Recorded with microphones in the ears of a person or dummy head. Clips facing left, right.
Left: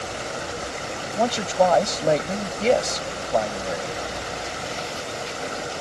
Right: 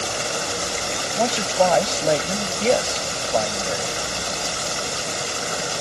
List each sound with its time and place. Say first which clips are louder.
0.0 s running water: right 3 dB; 55° right (ahead or behind)
1.1 s a man speaking: even; 5° right (ahead or behind)